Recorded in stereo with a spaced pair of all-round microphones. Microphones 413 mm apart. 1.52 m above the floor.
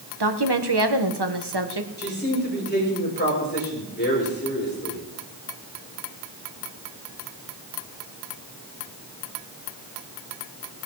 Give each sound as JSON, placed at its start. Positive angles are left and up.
{"t": 0.2, "sound": "a woman speaking", "side_deg": -70, "distance_m": 1.4}
{"t": 2.0, "sound": "a man speaking", "side_deg": 25, "distance_m": 6.5}